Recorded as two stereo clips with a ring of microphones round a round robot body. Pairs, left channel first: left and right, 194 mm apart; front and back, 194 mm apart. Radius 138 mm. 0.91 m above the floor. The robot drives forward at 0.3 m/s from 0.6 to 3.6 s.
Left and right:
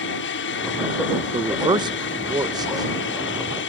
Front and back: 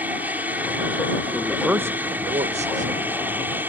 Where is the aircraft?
100° left.